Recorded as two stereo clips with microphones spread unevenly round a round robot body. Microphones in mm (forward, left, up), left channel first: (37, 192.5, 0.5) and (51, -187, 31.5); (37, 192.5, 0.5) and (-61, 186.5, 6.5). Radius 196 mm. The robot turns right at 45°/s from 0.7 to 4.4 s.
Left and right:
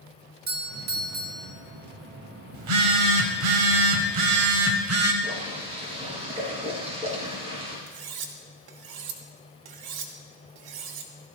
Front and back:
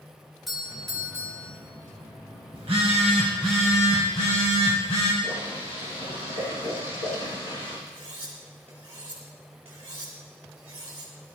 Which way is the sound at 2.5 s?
120° right.